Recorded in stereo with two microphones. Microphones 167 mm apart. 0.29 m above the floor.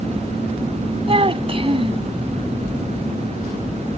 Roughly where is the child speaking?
Right.